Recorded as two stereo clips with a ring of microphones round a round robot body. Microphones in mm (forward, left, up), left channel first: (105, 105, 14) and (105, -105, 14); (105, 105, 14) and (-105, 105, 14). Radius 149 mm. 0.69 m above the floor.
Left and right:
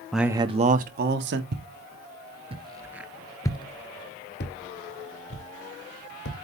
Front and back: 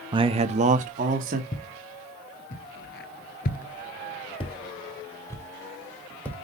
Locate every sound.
0.1 s a man speaking: 175° left, 0.5 m; by 1.4 s 125° right, 1.1 m
1.5 s footsteps: 55° right, 1.4 m; by 6.4 s 85° left, 2 m